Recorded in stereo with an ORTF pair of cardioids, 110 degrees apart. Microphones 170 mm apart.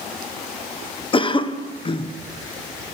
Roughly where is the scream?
No scream in this recording.